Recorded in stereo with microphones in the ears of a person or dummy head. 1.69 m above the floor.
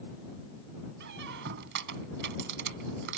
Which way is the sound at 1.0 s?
60° right (ahead or behind).